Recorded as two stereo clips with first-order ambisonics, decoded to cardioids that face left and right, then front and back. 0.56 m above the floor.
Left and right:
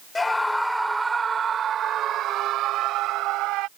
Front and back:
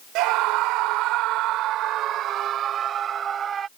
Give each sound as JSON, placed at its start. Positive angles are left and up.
{"t": 0.1, "sound": "a scream", "azimuth_deg": 165}